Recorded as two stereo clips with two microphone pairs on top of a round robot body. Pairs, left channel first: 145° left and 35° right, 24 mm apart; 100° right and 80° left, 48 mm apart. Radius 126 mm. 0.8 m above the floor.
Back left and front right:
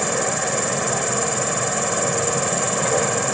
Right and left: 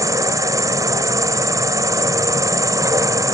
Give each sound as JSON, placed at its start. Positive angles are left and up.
{"t": 0.0, "sound": "an insect", "azimuth_deg": 50}